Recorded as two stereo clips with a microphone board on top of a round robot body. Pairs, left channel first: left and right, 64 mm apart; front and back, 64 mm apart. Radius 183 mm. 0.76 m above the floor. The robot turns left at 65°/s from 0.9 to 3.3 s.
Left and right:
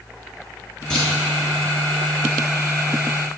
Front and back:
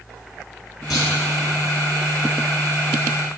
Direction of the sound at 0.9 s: 10° left.